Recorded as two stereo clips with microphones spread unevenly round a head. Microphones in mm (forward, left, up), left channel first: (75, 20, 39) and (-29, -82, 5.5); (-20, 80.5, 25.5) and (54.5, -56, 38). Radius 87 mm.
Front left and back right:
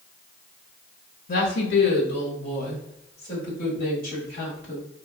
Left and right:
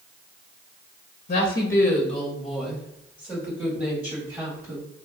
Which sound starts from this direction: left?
A woman speaking, at 1.3 s.